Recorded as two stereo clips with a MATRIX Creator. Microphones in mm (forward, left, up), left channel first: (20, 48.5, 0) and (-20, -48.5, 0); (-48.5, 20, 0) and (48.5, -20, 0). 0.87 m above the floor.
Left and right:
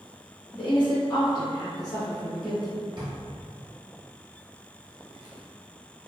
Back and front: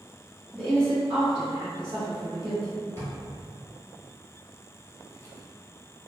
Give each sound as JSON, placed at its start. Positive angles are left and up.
{"t": 0.5, "sound": "a woman speaking", "azimuth_deg": 85, "distance_m": 1.2}
{"t": 3.0, "sound": "a drawer", "azimuth_deg": -140, "distance_m": 1.1}